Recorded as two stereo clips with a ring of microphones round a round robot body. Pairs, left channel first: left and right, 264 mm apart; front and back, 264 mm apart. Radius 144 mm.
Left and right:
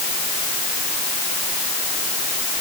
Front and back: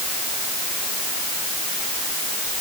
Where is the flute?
No flute in this recording.